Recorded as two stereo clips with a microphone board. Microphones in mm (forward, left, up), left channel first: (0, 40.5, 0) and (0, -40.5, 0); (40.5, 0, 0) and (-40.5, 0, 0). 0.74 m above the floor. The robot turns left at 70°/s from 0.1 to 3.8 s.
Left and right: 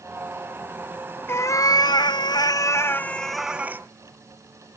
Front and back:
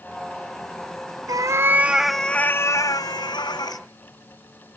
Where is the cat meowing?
150° left, 0.5 m; by 3.8 s 30° right, 0.5 m.